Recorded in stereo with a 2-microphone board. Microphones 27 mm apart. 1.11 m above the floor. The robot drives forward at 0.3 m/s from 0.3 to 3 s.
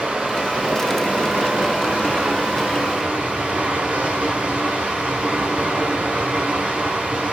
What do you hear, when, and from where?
0.0 s running water: 60° right (ahead or behind), 1.4 m; by 7.3 s 55° right (ahead or behind), 1.4 m